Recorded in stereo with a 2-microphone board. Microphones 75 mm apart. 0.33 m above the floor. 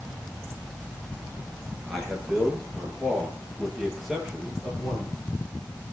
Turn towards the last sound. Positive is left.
turn(degrees=-10)  # may be behind; listen again after turning